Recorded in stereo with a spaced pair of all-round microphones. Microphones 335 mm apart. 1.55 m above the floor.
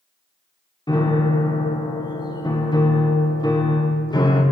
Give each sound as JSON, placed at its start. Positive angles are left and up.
{"t": 0.9, "sound": "a piano", "side_deg": 15, "distance_m": 0.5}